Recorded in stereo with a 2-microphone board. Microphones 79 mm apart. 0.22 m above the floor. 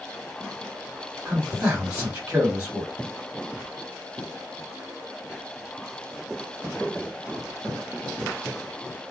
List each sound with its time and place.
1.2 s a man speaking: 15° right (ahead or behind), 1.2 m